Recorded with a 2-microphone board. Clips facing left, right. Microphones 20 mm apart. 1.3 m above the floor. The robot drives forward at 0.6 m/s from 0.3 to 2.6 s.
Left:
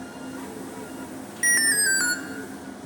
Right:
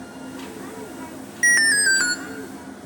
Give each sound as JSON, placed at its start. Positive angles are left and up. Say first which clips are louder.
{"t": 1.4, "sound": "an alarm", "louder": "right 5 dB", "side_deg": -25, "distance_m": 0.6}